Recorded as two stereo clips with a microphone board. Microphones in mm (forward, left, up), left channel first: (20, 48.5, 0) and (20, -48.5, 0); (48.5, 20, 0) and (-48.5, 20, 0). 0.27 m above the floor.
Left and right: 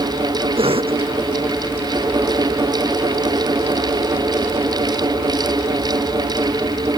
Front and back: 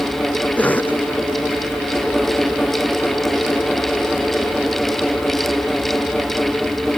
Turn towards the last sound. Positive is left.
turn(degrees=-75)